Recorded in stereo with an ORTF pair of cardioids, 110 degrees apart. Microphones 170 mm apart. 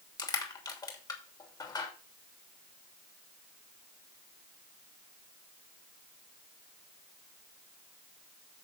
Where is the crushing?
25° left, 3 m.